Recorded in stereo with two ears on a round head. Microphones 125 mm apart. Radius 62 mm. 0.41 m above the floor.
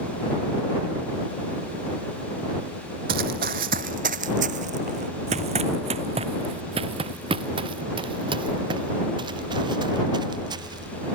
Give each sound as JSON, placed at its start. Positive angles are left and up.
{"t": 3.1, "sound": "running footsteps", "side_deg": -75}